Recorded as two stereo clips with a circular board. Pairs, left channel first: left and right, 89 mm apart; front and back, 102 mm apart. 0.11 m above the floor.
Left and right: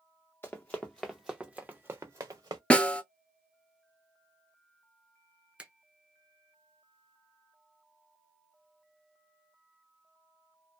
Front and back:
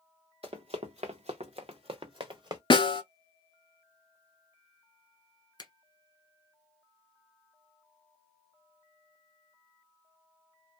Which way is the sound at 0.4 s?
155° left.